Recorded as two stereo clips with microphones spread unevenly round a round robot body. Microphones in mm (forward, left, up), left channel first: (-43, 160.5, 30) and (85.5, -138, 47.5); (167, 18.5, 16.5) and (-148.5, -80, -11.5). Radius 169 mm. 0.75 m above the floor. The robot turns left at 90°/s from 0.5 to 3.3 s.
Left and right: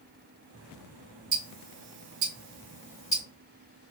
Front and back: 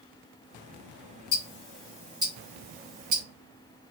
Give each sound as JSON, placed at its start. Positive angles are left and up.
{"t": 1.3, "sound": "ticking", "azimuth_deg": -5, "distance_m": 1.8}